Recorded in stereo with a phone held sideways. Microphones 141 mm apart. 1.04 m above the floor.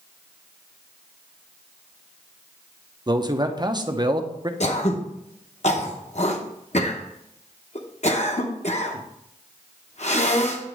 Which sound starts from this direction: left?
Throat clearing, at 4.6 s.